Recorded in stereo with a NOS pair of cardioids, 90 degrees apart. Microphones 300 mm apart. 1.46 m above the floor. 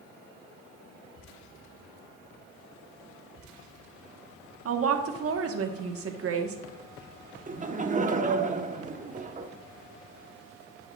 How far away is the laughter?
About 1.2 m.